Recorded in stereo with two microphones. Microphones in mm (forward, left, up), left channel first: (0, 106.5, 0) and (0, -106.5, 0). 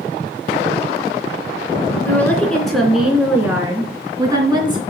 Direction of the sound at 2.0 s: 10° left (ahead or behind).